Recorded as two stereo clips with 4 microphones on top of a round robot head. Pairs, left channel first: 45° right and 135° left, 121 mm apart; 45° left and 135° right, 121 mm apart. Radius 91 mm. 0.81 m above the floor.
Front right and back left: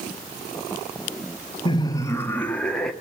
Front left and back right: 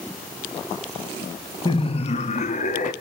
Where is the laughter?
Straight ahead, 1.0 m; by 2.9 s 40° left, 1.9 m.